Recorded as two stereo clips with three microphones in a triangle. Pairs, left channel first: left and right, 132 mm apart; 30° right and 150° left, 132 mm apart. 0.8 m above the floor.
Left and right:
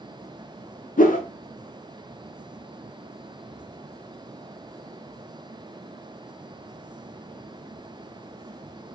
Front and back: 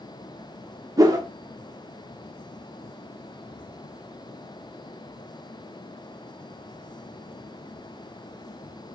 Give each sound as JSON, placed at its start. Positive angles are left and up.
{"t": 1.0, "sound": "a whoosh", "azimuth_deg": 90, "distance_m": 0.9}